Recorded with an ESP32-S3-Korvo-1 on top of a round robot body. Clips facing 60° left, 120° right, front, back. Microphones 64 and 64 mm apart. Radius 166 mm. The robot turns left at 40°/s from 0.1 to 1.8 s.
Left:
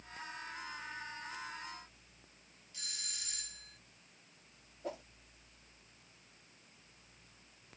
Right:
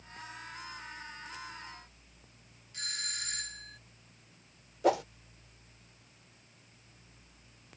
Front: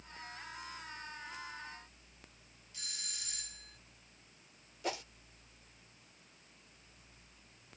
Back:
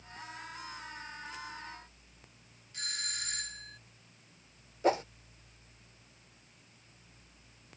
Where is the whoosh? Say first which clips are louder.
Right 17 dB, back 11 dB; 125° right.